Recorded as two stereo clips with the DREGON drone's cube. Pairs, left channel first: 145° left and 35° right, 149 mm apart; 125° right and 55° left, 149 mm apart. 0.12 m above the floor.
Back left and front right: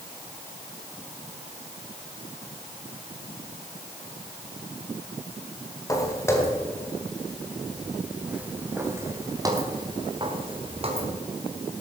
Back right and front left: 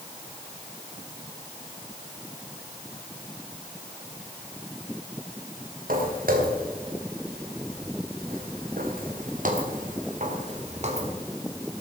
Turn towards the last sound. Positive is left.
turn(degrees=10)